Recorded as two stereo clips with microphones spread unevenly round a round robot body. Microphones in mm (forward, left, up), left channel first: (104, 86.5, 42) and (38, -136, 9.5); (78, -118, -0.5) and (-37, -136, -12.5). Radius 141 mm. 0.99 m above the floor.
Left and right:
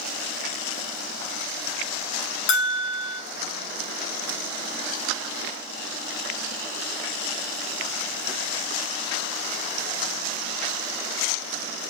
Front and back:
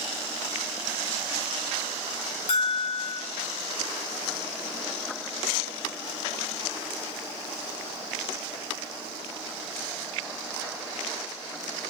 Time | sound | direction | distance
2.5 | a bell | 45° left | 1.5 m